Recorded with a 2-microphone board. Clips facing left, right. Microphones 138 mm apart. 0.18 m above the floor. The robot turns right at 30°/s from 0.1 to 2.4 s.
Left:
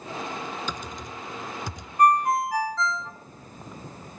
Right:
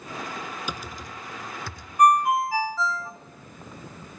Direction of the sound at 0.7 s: 10° right (ahead or behind).